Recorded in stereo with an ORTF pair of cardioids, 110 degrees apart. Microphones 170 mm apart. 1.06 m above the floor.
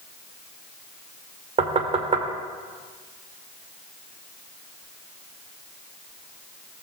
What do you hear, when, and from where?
1.6 s knocking: 35° right, 2.5 m